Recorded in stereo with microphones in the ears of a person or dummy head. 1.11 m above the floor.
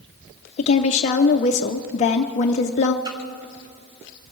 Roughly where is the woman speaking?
Left.